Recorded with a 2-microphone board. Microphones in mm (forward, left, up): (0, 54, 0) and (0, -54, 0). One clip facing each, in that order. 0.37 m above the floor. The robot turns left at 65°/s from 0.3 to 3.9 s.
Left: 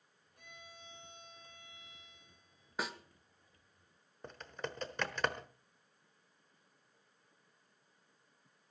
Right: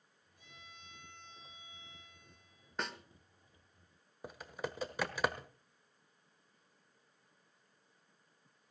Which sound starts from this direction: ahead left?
A violin, at 0.4 s.